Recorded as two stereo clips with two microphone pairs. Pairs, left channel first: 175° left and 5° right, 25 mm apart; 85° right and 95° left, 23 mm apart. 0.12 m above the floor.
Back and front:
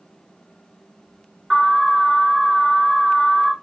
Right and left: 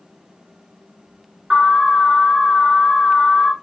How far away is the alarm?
About 1.2 m.